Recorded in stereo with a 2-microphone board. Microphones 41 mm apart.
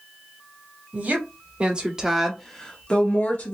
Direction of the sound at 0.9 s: 45° right (ahead or behind).